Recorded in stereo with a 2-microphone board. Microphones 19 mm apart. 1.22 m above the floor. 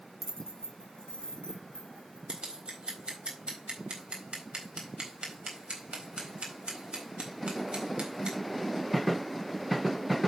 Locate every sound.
0.2 s keys jangling: 20° left (ahead or behind), 0.7 m; by 2.2 s 75° left (ahead or behind), 3 m
2.3 s scissors: 65° right (ahead or behind), 4 m